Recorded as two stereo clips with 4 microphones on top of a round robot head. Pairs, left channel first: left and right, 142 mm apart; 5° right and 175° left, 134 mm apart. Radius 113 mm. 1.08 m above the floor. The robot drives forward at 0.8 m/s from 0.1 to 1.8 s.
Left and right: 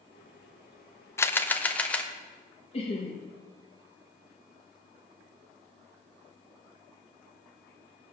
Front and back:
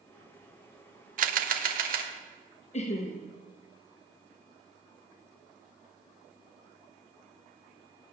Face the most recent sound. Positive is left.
turn(degrees=35)